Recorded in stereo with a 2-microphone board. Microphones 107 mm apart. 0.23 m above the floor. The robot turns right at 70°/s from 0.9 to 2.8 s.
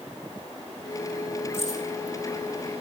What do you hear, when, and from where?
1.5 s keys jangling: 20° left (ahead or behind), 8.5 m; by 1.8 s 40° left (ahead or behind), 8.5 m